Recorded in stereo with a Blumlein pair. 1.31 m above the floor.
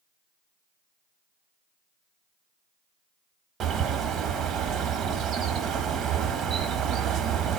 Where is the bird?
25° right, 1.1 m.